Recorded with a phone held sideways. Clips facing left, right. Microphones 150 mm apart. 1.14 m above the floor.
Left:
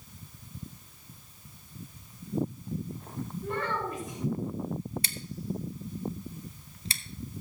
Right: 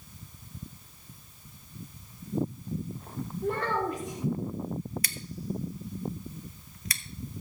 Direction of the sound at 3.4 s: 75° right (ahead or behind).